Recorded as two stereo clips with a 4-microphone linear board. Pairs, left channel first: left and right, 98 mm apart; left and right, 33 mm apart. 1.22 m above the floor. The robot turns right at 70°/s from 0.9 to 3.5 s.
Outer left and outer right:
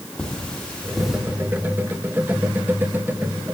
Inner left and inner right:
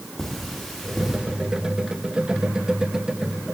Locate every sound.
0.2 s cutlery clinking: 10° left (ahead or behind), 1.3 m; by 1.2 s 10° right (ahead or behind), 1.3 m